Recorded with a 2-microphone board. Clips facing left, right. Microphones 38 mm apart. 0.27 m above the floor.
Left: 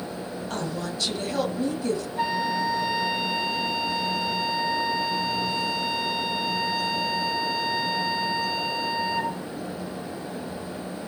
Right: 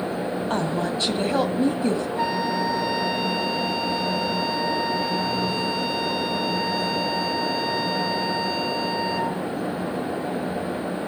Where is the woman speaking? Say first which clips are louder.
Right 5 dB; 40° right (ahead or behind), 1.9 m.